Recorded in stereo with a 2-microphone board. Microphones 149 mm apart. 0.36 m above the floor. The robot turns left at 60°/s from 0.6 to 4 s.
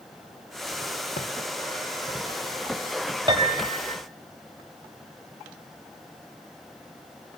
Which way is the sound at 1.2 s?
70° left (ahead or behind).